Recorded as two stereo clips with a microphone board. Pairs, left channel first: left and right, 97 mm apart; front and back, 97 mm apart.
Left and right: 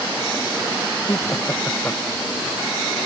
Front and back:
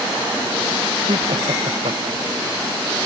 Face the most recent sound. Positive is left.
turn(degrees=165)